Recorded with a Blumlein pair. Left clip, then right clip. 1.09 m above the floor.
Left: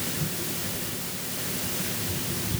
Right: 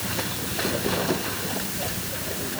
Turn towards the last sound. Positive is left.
No sound to turn to.